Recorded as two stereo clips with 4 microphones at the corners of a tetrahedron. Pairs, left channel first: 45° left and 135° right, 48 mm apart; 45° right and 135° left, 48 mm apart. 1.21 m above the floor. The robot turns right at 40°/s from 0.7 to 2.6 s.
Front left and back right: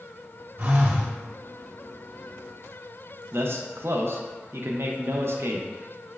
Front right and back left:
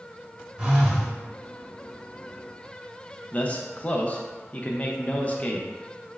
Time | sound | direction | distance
0.6 | a phone buzzing | 155° right | 0.9 m
3.3 | a man speaking | 105° right | 0.5 m